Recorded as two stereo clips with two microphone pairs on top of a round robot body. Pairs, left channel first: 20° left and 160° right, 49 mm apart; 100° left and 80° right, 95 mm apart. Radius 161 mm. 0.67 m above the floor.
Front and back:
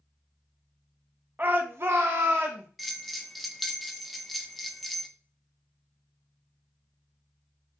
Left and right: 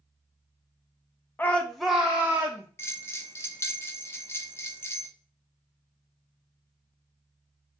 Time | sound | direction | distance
1.4 | a shout | 155° left | 0.8 m
2.8 | a bell | 95° left | 0.9 m